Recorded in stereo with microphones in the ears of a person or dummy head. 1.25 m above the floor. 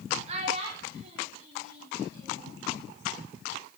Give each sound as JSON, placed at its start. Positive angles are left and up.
{"t": 0.3, "sound": "a child speaking", "side_deg": -40, "distance_m": 1.9}